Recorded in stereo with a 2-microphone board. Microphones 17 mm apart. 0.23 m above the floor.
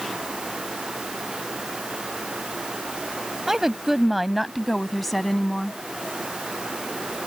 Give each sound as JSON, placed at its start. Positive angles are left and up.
{"t": 3.5, "sound": "a woman speaking", "side_deg": -20}